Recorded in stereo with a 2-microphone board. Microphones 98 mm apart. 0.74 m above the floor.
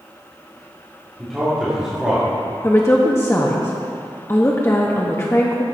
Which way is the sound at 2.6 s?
30° left (ahead or behind).